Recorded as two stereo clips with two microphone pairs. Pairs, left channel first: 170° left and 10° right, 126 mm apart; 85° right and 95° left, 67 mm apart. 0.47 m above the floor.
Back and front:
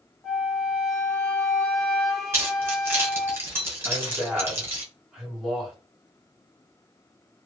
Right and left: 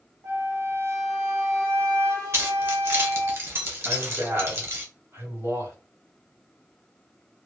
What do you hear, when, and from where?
0.2 s a flute: 80° left, 1.0 m
2.3 s keys jangling: 55° left, 1.1 m
3.9 s a man speaking: 75° left, 1.9 m